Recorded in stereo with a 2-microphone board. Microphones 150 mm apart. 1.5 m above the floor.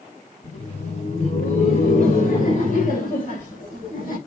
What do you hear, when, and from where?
0.4 s laughter: 50° left (ahead or behind), 5.5 m; by 4.2 s 65° left (ahead or behind), 7 m